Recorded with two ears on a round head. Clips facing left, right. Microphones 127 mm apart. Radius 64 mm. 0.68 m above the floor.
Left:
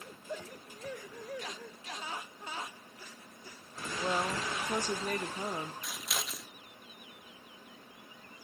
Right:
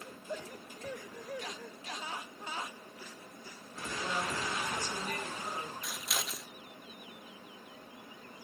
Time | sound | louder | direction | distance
4.0 | a woman speaking | left 3 dB | 25° left (ahead or behind) | 1.1 m
5.8 | scissors | even | centre (ahead or behind) | 1.2 m